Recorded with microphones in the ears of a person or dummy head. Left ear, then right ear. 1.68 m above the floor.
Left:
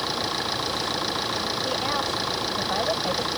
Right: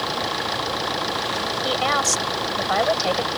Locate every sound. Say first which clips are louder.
0.0 s an engine running: right 2 dB; 20° right (ahead or behind)
1.6 s a woman speaking: right 9 dB; 75° right (ahead or behind)